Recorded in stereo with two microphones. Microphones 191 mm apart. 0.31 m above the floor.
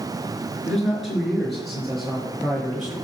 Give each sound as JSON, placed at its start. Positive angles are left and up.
{"t": 0.7, "sound": "a man speaking", "side_deg": 0, "distance_m": 4.5}